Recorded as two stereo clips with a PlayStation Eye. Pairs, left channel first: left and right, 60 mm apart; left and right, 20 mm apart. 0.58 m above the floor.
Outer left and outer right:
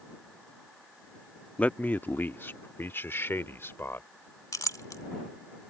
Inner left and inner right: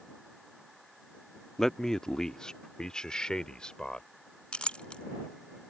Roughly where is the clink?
Left.